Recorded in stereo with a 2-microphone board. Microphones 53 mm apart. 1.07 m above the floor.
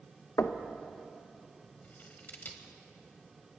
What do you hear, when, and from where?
0.4 s knocking: 65° left (ahead or behind), 0.6 m
1.8 s scissors: 35° left (ahead or behind), 1.1 m